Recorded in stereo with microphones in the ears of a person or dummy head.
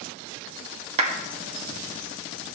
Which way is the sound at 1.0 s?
30° right (ahead or behind).